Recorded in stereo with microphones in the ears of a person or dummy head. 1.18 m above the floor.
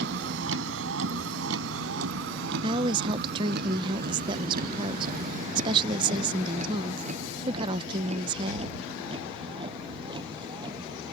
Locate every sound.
0.0 s a vehicle: 75° right (ahead or behind); by 11.1 s 20° right (ahead or behind)
2.6 s a woman speaking: 30° right (ahead or behind)